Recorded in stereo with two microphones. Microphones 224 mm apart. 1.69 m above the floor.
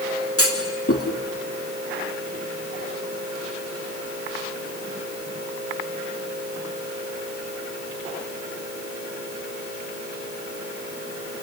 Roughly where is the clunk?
Left.